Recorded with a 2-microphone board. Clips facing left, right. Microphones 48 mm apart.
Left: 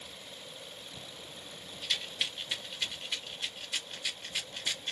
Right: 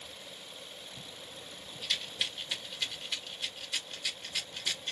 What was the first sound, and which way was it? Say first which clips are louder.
A rattle: even; 15° left (ahead or behind).